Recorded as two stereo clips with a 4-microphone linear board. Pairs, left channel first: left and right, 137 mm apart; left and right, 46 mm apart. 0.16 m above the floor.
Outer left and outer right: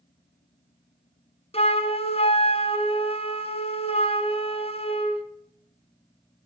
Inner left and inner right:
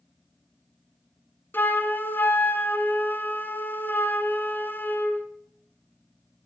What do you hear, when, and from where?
1.5 s a flute: 50° left (ahead or behind), 1.1 m